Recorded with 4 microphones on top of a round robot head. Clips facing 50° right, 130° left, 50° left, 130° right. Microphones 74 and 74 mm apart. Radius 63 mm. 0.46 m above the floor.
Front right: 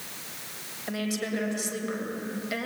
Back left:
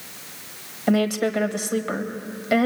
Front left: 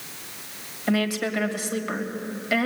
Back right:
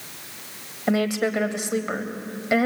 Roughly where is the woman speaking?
Behind.